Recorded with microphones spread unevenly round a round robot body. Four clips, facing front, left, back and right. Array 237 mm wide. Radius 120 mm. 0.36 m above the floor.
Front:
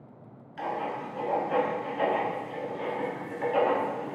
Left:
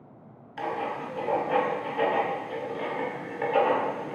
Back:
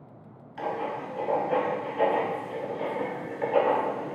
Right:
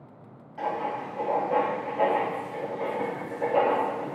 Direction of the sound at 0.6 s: 85° left.